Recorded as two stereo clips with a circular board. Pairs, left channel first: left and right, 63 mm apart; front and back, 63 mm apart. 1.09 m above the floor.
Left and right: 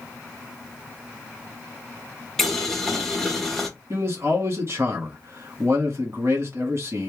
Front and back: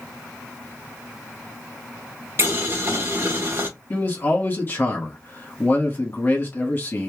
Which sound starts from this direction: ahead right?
A man speaking, at 3.9 s.